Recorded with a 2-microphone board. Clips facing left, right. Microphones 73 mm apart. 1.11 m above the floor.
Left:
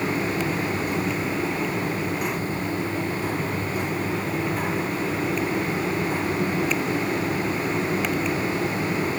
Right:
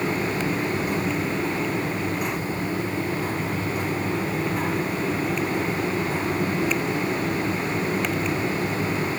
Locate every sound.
Only background noise.